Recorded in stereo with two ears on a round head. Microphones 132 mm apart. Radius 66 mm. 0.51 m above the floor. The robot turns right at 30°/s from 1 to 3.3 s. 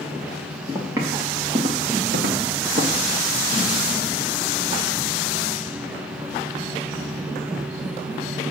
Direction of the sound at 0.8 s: 15° right (ahead or behind).